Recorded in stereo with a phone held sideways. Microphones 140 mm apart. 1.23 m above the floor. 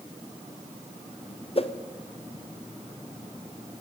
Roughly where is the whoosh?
Left.